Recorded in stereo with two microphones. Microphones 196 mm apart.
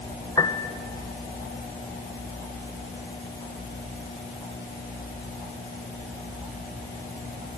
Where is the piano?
20° left (ahead or behind), 1.0 m.